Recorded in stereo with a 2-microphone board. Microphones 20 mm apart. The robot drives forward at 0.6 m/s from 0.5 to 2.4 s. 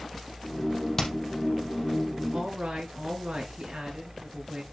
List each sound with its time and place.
1.0 s hammering: 20° left (ahead or behind), 3.5 m; by 1.1 s 15° left (ahead or behind), 3.5 m
2.3 s a woman speaking: 75° right (ahead or behind), 5.5 m